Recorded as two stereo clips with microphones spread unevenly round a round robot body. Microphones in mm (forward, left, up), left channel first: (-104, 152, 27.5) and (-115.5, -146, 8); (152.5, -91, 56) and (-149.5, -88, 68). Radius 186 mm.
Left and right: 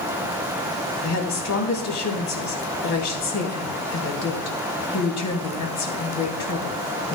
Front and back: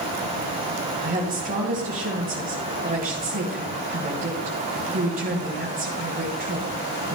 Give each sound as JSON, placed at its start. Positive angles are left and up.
{"t": 1.0, "sound": "a woman speaking", "azimuth_deg": 115, "distance_m": 3.5}